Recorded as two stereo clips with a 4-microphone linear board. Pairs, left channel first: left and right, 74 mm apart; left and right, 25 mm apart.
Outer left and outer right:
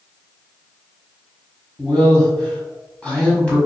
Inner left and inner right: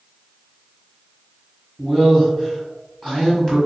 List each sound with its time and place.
1.8 s a man speaking: 20° left (ahead or behind), 1.7 m